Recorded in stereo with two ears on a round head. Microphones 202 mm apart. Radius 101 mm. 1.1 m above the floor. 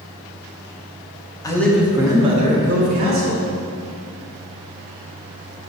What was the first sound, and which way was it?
A man speaking, 15° left (ahead or behind).